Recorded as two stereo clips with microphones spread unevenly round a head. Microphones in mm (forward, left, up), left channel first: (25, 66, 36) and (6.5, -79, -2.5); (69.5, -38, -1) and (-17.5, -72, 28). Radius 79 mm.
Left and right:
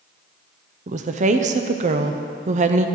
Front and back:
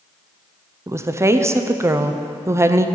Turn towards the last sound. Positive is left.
turn(degrees=-90)